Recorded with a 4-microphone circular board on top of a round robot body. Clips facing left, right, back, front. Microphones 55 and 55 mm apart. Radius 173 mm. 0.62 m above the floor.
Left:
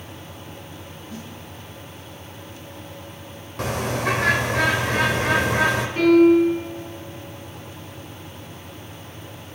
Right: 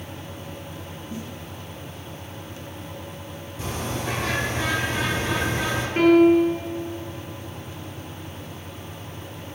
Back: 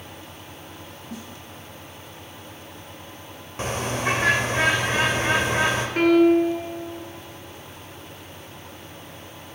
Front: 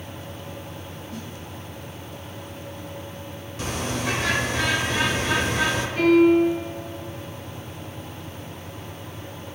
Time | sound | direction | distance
1.1 | a snare drum | 150° right | 5.5 m
3.6 | a bird | 125° left | 1.6 m
6.0 | a piano | 140° right | 3.5 m